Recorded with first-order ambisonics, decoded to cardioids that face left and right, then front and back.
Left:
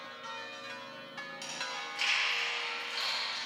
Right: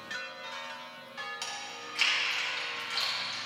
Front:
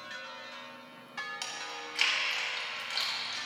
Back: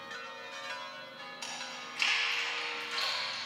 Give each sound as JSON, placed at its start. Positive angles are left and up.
{"t": 1.4, "sound": "chewing", "azimuth_deg": -25, "distance_m": 4.0}